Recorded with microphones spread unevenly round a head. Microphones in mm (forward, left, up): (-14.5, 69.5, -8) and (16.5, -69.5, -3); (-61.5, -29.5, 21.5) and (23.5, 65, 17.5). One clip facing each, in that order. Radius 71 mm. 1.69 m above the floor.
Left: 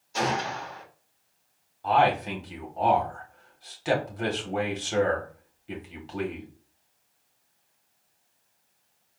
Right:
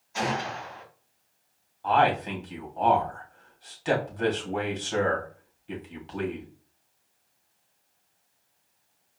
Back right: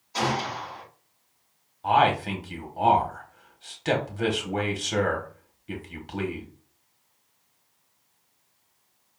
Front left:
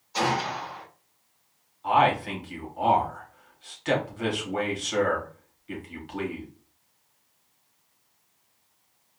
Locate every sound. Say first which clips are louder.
0.1 s a gunshot: left 2 dB, front left 1 dB; 150° left, 2.5 m
1.8 s a man speaking: left 1 dB, back right 1 dB; 175° right, 1.7 m